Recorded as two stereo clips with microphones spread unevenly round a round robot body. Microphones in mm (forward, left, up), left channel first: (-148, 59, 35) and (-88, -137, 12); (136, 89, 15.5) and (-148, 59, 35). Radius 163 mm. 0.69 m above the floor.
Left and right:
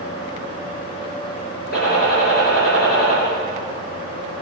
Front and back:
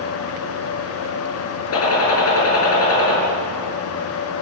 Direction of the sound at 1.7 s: 45° left.